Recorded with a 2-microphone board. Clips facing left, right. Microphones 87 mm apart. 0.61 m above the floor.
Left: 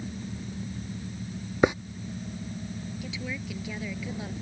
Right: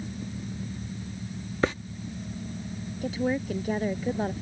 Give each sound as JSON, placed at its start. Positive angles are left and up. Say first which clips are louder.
{"t": 1.6, "sound": "a hiss", "louder": "left 4 dB", "side_deg": 15}
{"t": 3.0, "sound": "a woman speaking", "louder": "right 13 dB", "side_deg": -40}